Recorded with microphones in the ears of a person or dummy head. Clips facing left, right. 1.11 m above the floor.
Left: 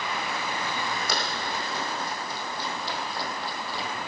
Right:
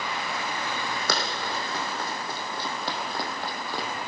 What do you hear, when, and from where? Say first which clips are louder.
1.1 s running footsteps: right 1 dB; 60° right (ahead or behind), 4 m; by 3.9 s 45° right (ahead or behind), 2.5 m